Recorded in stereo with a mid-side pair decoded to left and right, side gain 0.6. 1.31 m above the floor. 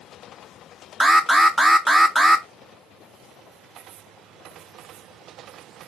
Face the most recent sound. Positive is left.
turn(degrees=-5)